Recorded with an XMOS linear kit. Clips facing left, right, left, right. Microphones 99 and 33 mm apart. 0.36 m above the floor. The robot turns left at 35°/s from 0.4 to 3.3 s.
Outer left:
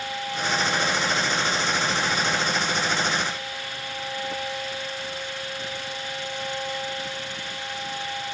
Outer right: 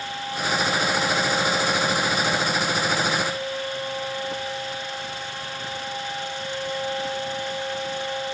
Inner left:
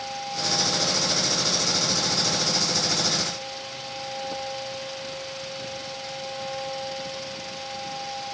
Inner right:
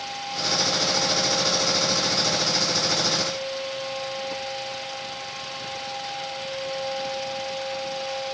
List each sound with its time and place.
Only background noise.